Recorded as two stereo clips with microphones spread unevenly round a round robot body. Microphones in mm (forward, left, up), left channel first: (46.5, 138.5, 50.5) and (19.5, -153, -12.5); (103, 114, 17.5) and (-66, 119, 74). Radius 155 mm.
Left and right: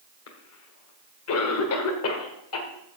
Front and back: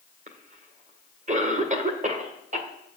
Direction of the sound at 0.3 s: 125° left.